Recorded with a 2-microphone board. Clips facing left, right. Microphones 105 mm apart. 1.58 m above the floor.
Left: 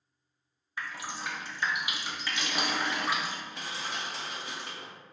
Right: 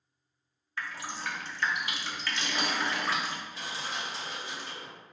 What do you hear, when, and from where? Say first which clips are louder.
0.8 s dripping: even; 15° left (ahead or behind), 0.7 m
3.5 s crushing: even; 65° left (ahead or behind), 1.3 m